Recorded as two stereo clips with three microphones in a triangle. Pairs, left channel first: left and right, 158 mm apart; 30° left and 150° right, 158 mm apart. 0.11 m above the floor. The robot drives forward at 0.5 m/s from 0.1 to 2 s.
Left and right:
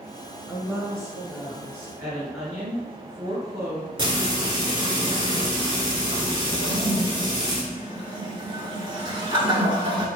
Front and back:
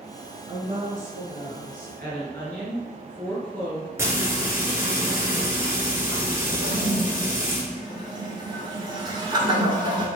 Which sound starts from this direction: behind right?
A toilet flushing, at 6.6 s.